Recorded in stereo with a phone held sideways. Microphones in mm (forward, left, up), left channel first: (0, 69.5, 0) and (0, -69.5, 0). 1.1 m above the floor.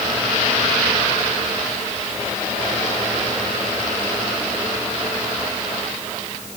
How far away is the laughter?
No laughter in this recording.